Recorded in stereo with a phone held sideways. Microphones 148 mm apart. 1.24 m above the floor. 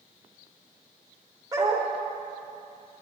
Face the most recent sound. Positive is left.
turn(degrees=-25)  # may be behind; listen again after turning